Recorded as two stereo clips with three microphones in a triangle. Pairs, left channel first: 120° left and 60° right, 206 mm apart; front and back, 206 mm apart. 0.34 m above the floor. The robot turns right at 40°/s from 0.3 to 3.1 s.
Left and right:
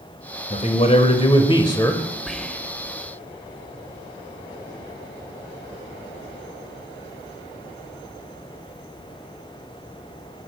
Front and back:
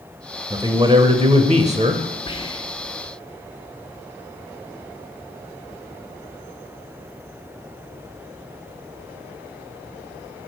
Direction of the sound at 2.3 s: 30° left.